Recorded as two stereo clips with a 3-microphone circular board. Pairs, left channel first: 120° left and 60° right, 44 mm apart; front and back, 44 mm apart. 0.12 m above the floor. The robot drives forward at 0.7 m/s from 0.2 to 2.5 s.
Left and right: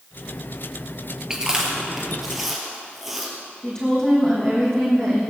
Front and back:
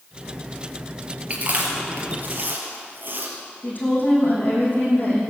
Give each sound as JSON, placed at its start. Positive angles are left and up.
{"t": 1.3, "sound": "chewing", "azimuth_deg": -130, "distance_m": 2.5}
{"t": 3.6, "sound": "a woman speaking", "azimuth_deg": 50, "distance_m": 5.0}